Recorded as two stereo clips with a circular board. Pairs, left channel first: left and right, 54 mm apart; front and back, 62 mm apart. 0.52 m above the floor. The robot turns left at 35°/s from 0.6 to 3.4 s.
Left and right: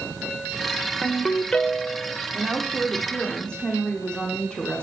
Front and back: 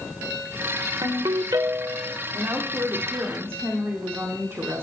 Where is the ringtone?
175° right, 0.9 m; by 2.2 s 145° left, 0.9 m.